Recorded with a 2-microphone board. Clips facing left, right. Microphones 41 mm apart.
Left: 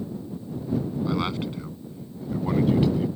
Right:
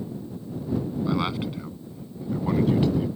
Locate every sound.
1.1 s a man speaking: 5° right (ahead or behind); by 3.1 s 5° left (ahead or behind)